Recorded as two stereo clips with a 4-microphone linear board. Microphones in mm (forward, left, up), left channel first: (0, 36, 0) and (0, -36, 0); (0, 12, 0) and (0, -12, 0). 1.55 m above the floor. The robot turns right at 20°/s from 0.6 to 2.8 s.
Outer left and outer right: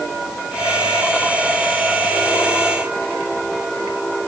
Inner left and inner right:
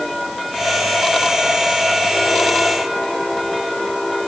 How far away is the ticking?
No ticking in this recording.